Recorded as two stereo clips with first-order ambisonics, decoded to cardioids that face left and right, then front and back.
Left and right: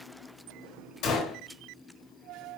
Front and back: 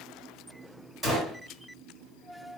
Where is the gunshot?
110° left, 1.5 m.